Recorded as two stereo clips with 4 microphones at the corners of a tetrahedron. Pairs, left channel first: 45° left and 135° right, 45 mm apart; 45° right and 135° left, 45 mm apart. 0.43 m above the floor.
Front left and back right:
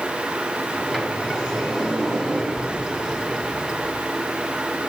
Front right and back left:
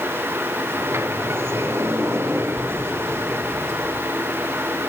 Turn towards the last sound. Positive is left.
turn(degrees=145)